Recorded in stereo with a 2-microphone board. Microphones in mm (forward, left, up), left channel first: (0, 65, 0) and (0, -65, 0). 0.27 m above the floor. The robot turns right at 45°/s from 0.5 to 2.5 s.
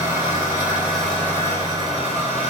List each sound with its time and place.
0.0 s an engine running: 20° right, 1.1 m; by 2.5 s 70° left, 1.1 m